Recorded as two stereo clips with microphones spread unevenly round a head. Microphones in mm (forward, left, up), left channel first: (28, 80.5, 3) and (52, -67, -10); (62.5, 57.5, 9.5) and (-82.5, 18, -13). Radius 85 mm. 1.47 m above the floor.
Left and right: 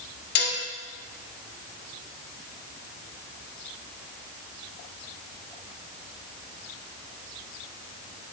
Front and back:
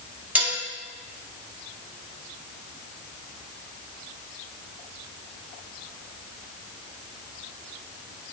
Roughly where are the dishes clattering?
Left.